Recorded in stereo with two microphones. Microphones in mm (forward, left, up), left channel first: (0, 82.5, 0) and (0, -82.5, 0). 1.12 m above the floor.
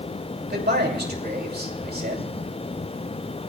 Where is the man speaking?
75° right (ahead or behind), 2.5 m.